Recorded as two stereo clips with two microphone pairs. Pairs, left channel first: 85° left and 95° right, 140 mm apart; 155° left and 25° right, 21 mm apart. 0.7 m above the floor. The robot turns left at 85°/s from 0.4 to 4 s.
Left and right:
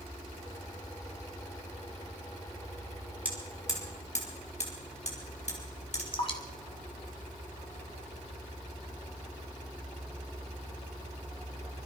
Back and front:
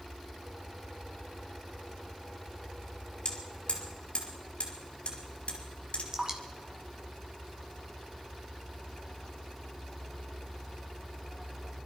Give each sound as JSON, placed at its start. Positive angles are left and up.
{"t": 3.2, "sound": "hammering", "azimuth_deg": -175, "distance_m": 4.5}
{"t": 6.1, "sound": "dripping", "azimuth_deg": 35, "distance_m": 2.0}